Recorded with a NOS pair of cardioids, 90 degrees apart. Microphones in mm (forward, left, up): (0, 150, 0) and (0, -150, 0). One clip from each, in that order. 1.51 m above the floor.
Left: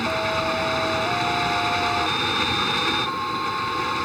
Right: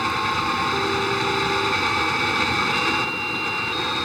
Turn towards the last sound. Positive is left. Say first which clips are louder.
# right 1 dB
turn(degrees=-10)